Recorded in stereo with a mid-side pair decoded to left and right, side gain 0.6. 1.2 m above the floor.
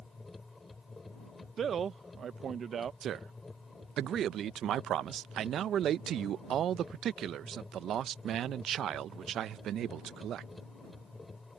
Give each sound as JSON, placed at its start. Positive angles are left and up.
{"t": 0.0, "sound": "a machine running", "azimuth_deg": 20}
{"t": 1.6, "sound": "a man speaking", "azimuth_deg": -40}
{"t": 3.0, "sound": "a man speaking", "azimuth_deg": -50}